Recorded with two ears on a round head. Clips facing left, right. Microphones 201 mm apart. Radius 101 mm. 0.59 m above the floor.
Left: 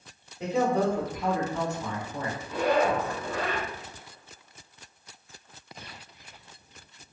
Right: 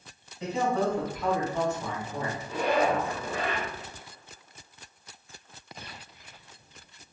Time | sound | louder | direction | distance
0.4 | a man speaking | left 2 dB | 45° left (ahead or behind) | 1.4 m
2.5 | a zipper | left 1 dB | 40° right (ahead or behind) | 1.7 m